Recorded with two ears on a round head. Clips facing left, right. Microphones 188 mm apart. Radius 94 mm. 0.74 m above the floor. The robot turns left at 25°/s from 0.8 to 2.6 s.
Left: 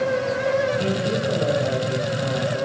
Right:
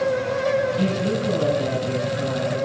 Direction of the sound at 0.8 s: 110° right.